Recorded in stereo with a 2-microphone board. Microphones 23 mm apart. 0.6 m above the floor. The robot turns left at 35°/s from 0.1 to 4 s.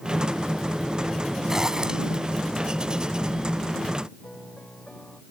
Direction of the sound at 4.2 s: 30° left (ahead or behind).